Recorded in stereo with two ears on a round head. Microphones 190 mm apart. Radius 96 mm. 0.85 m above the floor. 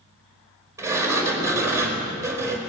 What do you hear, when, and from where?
0.8 s a sliding door: 15° right (ahead or behind), 4 m